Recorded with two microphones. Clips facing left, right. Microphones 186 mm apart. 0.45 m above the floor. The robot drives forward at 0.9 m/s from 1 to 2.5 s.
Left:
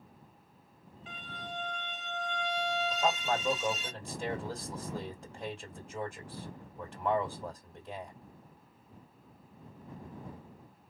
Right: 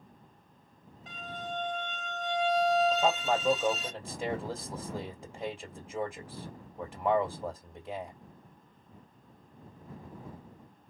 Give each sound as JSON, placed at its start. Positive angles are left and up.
{"t": 1.1, "sound": "a violin", "side_deg": -40, "distance_m": 1.0}
{"t": 2.9, "sound": "a man speaking", "side_deg": -10, "distance_m": 2.5}